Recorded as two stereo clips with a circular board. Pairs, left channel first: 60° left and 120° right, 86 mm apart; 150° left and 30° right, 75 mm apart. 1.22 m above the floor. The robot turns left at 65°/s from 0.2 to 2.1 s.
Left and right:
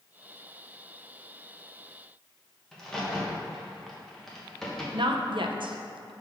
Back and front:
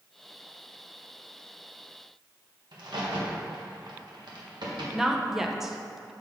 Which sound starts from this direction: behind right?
A woman speaking, at 4.9 s.